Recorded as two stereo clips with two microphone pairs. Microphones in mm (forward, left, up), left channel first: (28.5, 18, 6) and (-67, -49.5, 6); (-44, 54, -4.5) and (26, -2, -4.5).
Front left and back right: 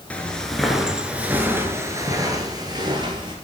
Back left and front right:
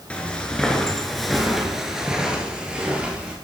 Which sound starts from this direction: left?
Footsteps, at 0.1 s.